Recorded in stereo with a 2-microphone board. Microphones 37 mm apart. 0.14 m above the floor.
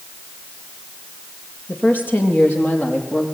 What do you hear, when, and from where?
1.7 s a woman speaking: 60° left (ahead or behind), 3.5 m; by 3.2 s 50° left (ahead or behind), 5 m